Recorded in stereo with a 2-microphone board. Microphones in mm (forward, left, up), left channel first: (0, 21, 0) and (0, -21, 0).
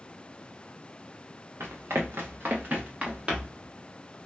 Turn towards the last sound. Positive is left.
turn(degrees=-10)  # may be behind; listen again after turning